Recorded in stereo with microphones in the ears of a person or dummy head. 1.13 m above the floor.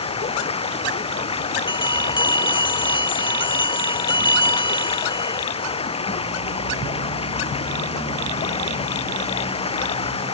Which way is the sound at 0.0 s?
30° left (ahead or behind).